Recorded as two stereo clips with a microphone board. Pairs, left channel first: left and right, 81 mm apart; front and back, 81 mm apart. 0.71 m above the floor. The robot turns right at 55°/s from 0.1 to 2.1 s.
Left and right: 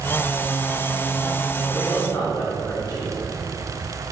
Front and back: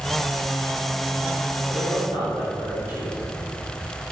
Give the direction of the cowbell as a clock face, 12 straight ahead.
I don't hear a cowbell.